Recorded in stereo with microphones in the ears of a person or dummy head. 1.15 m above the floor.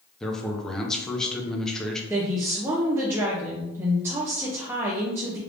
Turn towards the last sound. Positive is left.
turn(degrees=-15)  # may be behind; listen again after turning